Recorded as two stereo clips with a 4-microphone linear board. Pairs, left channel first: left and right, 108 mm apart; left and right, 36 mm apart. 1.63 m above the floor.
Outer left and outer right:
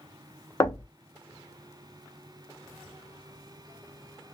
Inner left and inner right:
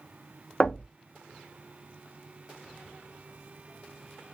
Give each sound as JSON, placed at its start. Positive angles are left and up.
{"t": 0.6, "sound": "knocking", "side_deg": 30, "distance_m": 0.6}